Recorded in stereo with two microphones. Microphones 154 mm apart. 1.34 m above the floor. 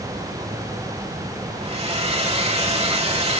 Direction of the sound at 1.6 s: 40° right (ahead or behind).